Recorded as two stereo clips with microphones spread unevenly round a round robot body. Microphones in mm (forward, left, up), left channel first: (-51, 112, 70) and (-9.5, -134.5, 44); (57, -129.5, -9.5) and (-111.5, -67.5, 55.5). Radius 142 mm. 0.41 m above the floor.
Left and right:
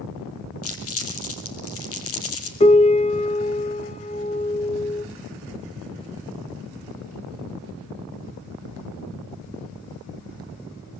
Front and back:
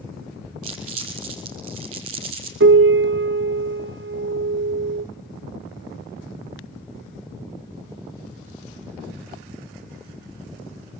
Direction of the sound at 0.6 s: 130° left.